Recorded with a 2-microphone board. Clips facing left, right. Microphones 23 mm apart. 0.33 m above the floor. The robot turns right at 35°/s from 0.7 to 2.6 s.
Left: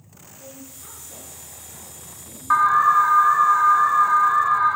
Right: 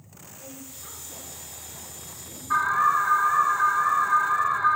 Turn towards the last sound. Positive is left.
turn(degrees=60)  # may be behind; listen again after turning